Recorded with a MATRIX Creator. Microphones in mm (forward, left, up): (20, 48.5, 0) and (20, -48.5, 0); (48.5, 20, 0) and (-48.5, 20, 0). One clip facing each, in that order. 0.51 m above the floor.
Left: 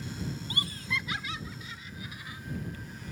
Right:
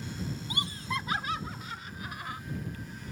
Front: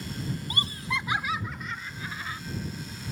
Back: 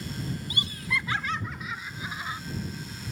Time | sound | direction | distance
0.5 | laughter | 25° right | ?